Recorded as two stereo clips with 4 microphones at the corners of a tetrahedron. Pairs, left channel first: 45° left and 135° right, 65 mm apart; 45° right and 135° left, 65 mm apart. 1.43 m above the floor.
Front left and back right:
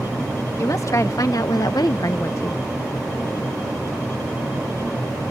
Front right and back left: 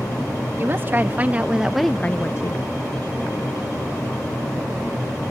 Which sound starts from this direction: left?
A woman speaking, at 0.6 s.